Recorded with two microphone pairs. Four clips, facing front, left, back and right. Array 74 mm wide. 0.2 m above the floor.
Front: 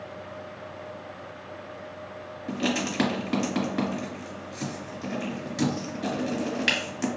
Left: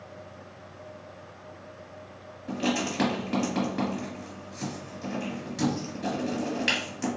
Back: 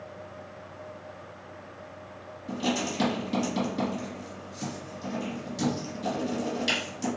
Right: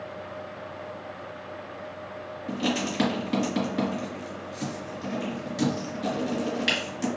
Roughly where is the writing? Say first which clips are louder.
Even, front 1 dB; ahead.